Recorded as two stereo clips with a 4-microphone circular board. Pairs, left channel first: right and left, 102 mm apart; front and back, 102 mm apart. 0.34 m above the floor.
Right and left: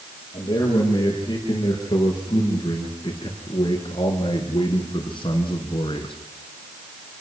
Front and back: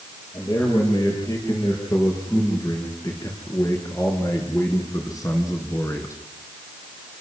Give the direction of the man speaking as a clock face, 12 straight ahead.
2 o'clock.